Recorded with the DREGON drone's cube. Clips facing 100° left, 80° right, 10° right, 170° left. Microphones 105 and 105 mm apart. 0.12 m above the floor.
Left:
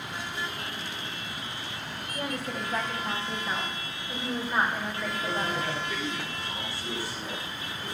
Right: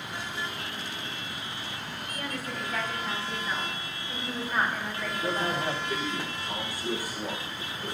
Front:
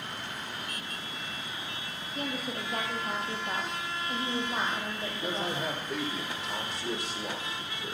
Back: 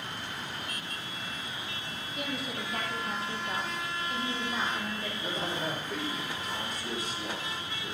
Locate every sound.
2.1 s a woman speaking: 35° left, 5 m; by 5.7 s 15° left, 6.5 m
5.1 s a man speaking: 35° right, 6.5 m